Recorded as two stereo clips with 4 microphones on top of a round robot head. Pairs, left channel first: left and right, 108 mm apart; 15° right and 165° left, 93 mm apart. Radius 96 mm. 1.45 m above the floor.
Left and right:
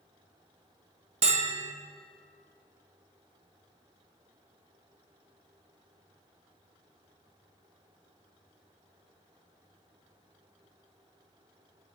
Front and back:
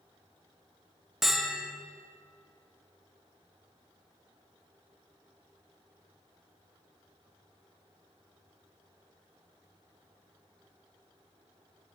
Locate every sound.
1.2 s a bell: 105° right, 1.2 m